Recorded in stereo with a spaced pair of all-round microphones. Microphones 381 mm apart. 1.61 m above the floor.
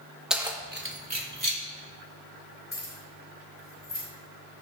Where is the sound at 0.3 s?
Centre (ahead or behind), 1.0 m; by 1.6 s 60° right (ahead or behind), 1.6 m.